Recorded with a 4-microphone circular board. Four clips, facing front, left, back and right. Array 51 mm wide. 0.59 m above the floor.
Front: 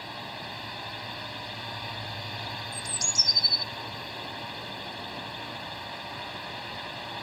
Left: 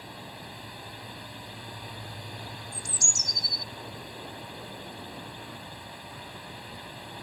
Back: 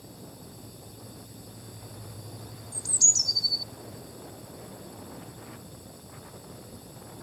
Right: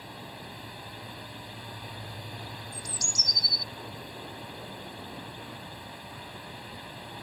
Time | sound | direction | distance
0.0 | a drone | straight ahead | ?
2.7 | a bird | 50° right | ?